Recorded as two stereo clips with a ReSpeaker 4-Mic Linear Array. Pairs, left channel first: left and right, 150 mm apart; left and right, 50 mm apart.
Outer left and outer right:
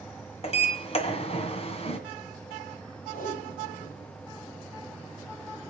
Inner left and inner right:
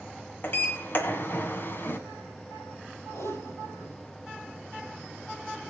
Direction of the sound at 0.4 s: 40° left (ahead or behind).